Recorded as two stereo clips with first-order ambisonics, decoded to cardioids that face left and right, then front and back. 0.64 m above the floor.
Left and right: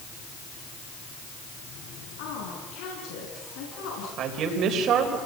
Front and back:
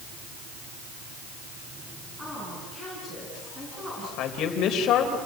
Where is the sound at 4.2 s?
45° right, 3.5 m.